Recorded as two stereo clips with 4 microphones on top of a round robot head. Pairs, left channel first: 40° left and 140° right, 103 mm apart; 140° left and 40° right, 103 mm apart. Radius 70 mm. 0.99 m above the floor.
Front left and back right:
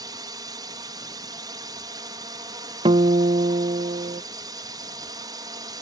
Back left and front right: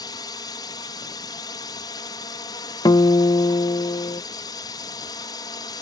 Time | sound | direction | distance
0.0 | a drone | straight behind | ?
2.9 | a guitar | 170° right | ?